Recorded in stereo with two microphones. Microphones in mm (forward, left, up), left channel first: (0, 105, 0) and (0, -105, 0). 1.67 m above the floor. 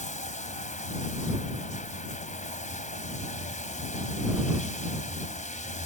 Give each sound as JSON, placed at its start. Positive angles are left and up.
{"t": 0.0, "sound": "running water", "side_deg": 35}